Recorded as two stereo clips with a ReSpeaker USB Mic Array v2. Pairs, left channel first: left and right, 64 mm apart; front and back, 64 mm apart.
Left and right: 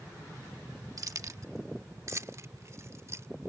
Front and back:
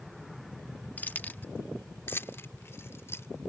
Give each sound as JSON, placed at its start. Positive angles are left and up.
{"t": 1.0, "sound": "keys jangling", "azimuth_deg": -65}